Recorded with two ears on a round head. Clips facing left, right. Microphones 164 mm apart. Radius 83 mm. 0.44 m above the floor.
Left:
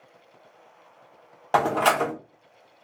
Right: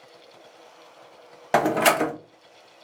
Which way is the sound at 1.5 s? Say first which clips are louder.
Right 2 dB; 20° right (ahead or behind).